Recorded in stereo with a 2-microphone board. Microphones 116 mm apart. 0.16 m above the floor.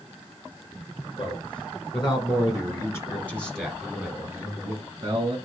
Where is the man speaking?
50° left (ahead or behind), 1.9 m; by 5.4 s 40° right (ahead or behind), 1.5 m.